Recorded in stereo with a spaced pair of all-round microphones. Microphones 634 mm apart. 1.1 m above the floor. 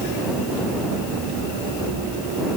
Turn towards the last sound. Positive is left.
No sound to turn to.